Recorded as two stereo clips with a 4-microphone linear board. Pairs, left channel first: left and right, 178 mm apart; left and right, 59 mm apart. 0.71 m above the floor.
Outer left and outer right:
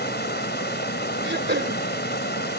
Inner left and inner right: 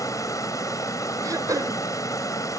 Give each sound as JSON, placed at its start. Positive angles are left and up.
{"t": 0.0, "sound": "running water", "side_deg": 75}
{"t": 1.2, "sound": "throat clearing", "side_deg": -80}